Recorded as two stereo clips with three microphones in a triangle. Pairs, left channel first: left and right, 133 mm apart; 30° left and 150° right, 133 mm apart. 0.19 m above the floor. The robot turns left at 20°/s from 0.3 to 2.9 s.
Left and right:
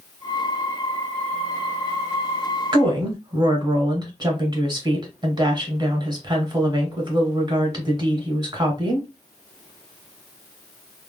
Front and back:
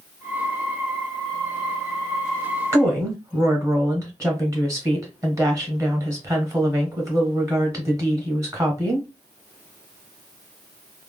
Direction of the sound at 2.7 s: 100° right.